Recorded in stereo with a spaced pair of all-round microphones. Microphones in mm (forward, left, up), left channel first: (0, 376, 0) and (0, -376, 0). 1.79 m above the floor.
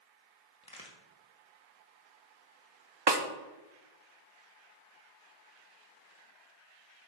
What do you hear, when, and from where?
0.6 s a crack: 5° left (ahead or behind), 1.8 m
3.1 s a snare drum: 35° right (ahead or behind), 0.9 m